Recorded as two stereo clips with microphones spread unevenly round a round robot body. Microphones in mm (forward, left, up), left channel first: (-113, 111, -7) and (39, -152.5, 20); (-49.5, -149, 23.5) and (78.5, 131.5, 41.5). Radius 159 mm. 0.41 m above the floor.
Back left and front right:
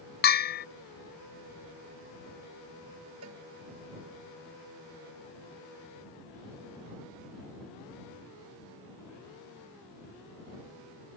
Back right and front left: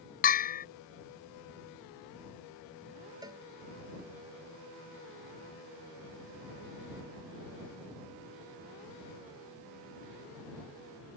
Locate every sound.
0.2 s a bell: straight behind
3.2 s a cowbell: 10° right